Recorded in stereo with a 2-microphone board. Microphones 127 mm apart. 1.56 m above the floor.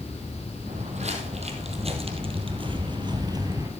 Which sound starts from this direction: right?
Footsteps, at 0.7 s.